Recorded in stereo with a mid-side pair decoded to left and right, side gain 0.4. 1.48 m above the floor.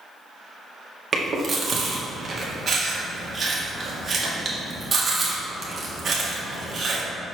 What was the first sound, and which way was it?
Chewing, 40° right.